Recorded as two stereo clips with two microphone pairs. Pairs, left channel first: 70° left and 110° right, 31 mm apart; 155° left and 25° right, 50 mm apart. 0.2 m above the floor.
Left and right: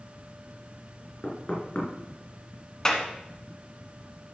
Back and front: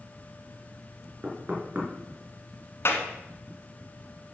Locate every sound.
1.2 s knocking: 30° left, 2.5 m
2.9 s a clap: 140° left, 1.4 m